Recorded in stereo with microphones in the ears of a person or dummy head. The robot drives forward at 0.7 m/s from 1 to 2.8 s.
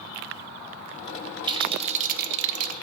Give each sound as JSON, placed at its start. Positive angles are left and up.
{"t": 1.5, "sound": "a rattle", "side_deg": -30, "distance_m": 0.9}